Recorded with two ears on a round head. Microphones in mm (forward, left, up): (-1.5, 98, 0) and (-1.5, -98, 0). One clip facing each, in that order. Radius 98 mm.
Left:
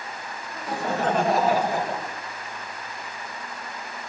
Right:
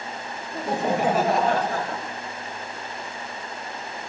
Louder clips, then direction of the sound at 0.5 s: Right 4 dB; 30° right (ahead or behind).